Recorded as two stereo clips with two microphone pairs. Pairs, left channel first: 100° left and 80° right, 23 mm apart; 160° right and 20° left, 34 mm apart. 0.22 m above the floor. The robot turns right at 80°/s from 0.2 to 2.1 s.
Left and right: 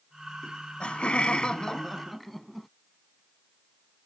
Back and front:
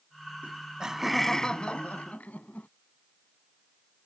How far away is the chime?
I don't hear a chime.